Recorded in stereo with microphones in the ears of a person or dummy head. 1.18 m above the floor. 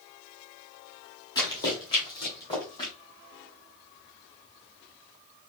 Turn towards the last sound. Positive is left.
turn(degrees=25)  # may be behind; listen again after turning